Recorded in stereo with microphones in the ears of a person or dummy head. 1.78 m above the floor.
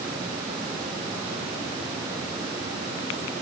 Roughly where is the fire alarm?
No fire alarm in this recording.